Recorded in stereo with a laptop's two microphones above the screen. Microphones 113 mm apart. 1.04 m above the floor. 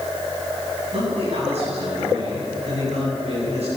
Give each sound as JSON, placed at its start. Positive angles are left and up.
{"t": 0.9, "sound": "a man speaking", "side_deg": -65, "distance_m": 9.5}